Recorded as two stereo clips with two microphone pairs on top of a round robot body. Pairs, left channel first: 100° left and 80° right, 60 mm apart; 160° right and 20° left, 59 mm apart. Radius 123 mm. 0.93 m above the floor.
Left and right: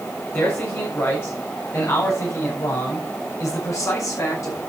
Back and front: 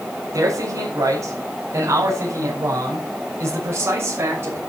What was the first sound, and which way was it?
A man speaking, 45° left.